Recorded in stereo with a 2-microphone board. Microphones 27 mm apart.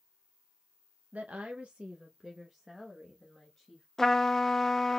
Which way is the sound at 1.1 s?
70° right (ahead or behind).